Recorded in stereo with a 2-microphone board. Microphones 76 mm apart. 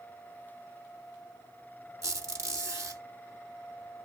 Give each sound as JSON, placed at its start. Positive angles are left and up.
{"t": 2.0, "sound": "a squeak", "side_deg": -40, "distance_m": 1.9}